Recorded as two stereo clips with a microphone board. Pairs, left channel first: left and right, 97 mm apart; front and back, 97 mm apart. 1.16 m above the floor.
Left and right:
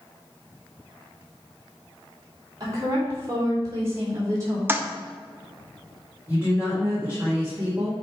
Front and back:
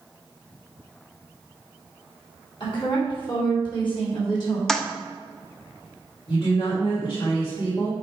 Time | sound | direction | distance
2.6 | a woman speaking | 35° right | 2.5 m
4.7 | a toilet flushing | 80° right | 0.6 m
6.3 | a woman speaking | 20° right | 1.7 m